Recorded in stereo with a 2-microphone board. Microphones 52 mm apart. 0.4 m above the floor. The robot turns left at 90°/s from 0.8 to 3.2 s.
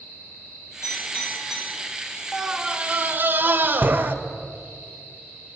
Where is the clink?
65° left (ahead or behind), 7 m; by 1.7 s 15° right (ahead or behind), 7 m.